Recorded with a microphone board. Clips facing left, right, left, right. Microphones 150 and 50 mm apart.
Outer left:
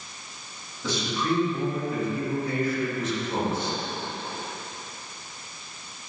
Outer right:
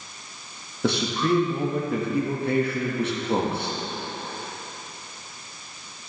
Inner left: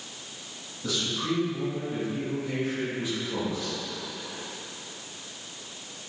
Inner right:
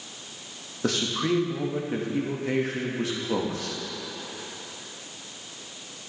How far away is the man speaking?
About 1.6 m.